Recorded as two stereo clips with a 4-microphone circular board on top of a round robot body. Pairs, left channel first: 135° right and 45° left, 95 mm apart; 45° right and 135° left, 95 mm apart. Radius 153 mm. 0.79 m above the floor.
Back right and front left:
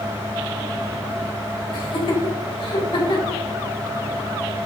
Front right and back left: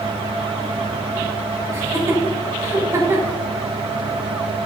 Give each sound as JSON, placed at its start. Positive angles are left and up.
{"t": 1.7, "sound": "laughter", "azimuth_deg": -165, "distance_m": 4.5}